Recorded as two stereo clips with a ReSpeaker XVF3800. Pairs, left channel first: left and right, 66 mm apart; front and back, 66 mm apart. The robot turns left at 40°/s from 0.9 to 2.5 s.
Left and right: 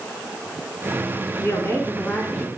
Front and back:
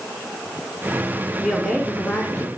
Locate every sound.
1.4 s a woman speaking: 85° left, 1.4 m; by 2.5 s 45° left, 1.4 m